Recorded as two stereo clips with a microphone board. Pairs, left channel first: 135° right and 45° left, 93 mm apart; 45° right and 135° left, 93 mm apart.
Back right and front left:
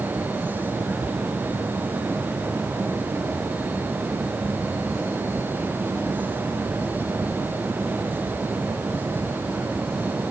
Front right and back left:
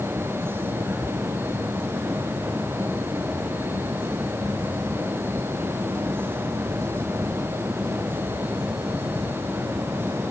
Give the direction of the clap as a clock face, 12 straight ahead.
I don't hear a clap.